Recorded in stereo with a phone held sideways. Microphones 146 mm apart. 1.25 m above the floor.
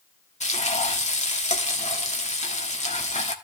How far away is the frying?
About 1.8 m.